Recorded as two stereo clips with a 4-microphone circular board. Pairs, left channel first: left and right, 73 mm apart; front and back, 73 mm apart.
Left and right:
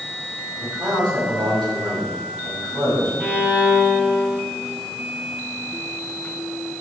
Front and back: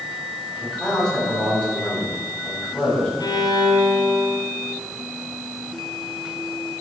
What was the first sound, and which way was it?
A man speaking, 80° right.